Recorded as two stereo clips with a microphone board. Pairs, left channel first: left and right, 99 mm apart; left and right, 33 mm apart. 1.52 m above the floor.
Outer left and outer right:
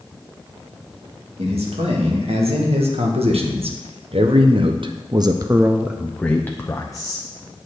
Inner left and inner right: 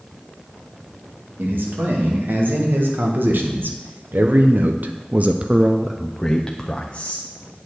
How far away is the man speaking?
About 2.5 m.